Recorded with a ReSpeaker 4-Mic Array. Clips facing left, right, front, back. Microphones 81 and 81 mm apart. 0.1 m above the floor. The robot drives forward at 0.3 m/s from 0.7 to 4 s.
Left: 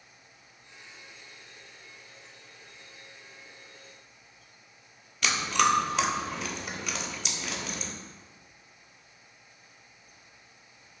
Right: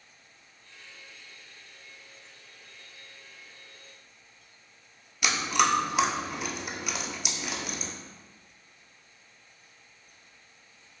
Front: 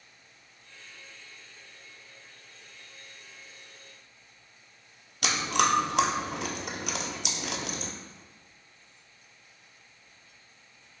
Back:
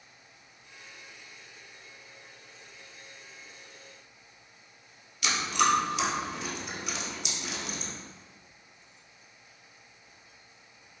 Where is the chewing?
10° right, 0.6 m.